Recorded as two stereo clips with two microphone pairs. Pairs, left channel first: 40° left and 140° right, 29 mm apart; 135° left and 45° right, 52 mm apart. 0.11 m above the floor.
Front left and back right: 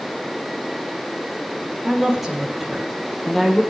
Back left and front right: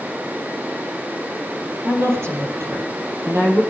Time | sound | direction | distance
1.9 | a woman speaking | 70° right | 3.5 m